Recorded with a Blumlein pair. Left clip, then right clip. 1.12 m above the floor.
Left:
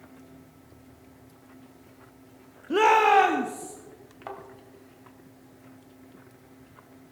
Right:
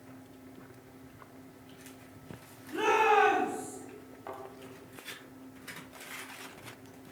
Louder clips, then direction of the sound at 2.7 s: Left 7 dB; 40° left.